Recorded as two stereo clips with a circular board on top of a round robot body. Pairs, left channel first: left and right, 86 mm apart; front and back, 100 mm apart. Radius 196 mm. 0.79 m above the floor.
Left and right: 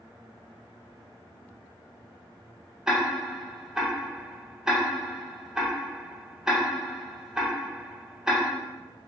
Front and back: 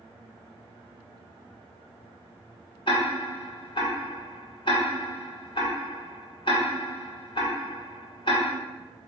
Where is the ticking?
5° right, 1.5 m.